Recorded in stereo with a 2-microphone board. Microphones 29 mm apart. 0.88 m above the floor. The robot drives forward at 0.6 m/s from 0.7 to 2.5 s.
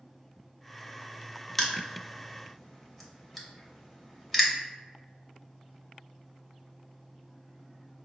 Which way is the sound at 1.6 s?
10° left (ahead or behind).